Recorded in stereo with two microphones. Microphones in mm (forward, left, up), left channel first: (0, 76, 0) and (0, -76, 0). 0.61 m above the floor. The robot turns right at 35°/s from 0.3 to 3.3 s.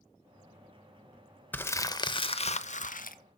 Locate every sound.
1.5 s crumpling: 10° left, 0.8 m; by 3.2 s 70° left, 0.8 m